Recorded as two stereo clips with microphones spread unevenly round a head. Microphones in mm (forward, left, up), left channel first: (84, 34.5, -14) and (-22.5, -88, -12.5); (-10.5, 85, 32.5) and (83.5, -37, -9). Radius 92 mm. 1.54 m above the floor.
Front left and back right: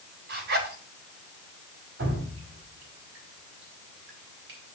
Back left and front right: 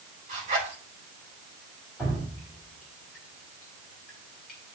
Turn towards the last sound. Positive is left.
turn(degrees=-150)